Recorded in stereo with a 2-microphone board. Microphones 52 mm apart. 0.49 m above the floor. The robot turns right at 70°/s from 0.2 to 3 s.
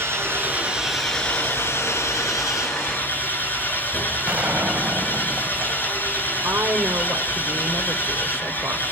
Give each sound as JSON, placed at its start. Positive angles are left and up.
{"t": 0.0, "sound": "an engine running", "azimuth_deg": -55, "distance_m": 6.5}
{"t": 4.3, "sound": "a gunshot", "side_deg": -25, "distance_m": 3.0}
{"t": 6.4, "sound": "a woman speaking", "side_deg": -55, "distance_m": 1.4}